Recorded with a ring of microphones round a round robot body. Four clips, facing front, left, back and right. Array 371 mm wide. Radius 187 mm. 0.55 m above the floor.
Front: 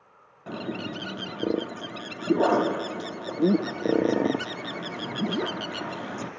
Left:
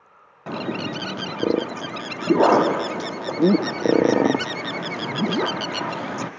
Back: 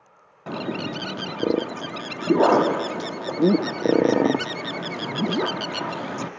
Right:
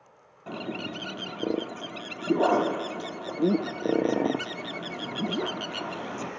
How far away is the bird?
About 0.7 m.